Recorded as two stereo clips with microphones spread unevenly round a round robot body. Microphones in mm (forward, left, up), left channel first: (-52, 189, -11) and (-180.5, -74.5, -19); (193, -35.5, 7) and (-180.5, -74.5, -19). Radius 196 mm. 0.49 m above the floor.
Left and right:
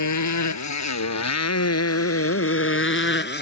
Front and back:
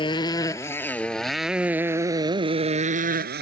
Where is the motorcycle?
85° left; by 3.4 s 120° left.